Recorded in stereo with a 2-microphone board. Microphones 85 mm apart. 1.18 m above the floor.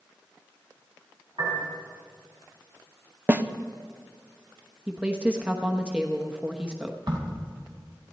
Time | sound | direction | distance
1.4 | a piano | 70° right (ahead or behind) | 5.5 m
3.3 | a snare drum | 20° right (ahead or behind) | 0.6 m
4.9 | a woman speaking | 10° right (ahead or behind) | 0.9 m
7.1 | a crack | 55° right (ahead or behind) | 2.5 m